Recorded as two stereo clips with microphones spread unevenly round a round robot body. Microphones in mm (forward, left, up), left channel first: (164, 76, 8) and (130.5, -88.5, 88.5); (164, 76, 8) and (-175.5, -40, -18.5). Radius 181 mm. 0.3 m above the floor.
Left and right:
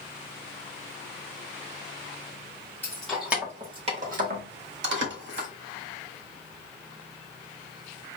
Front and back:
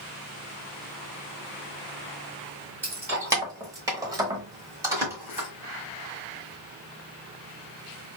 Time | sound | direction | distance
2.8 | keys jangling | 120° left | 1.2 m